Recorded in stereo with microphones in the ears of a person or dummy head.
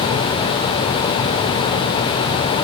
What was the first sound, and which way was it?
Only background noise.